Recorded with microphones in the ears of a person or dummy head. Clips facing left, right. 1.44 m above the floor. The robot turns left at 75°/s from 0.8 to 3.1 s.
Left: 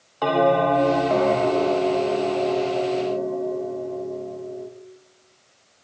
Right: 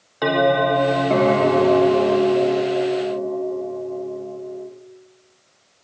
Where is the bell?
20° right, 0.5 m; by 4.7 s 170° left, 0.5 m.